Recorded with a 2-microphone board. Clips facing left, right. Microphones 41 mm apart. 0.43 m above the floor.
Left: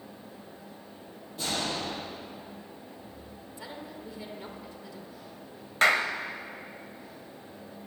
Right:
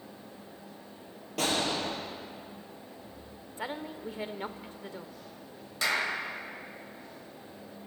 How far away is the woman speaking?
About 1.0 m.